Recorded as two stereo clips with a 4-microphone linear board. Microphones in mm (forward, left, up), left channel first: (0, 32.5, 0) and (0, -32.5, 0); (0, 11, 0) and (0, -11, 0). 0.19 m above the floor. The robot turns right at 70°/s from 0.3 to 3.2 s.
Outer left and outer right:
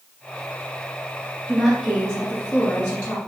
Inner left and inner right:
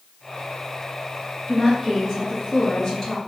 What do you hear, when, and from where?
1.5 s a woman speaking: 10° right (ahead or behind), 1.1 m; by 3.2 s 20° left (ahead or behind), 1.1 m